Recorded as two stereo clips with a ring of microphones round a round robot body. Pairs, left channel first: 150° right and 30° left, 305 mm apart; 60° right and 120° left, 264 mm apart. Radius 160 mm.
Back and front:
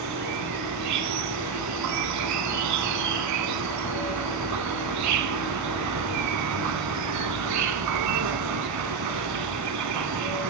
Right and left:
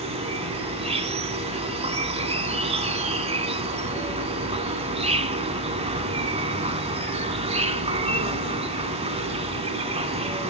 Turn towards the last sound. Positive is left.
turn(degrees=55)